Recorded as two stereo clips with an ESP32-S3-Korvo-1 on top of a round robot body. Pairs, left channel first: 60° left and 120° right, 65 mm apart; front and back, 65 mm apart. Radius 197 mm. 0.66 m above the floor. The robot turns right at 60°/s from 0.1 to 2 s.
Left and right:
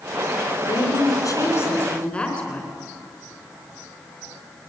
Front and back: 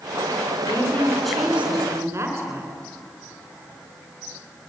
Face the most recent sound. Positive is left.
turn(degrees=130)